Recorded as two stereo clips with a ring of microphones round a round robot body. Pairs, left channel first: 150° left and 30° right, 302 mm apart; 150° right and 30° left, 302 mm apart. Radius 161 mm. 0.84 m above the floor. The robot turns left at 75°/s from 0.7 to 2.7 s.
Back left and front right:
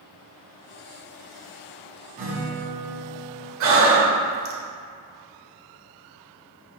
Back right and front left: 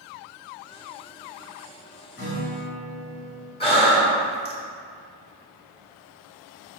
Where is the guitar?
95° right, 2 m; by 3.5 s 135° right, 2 m.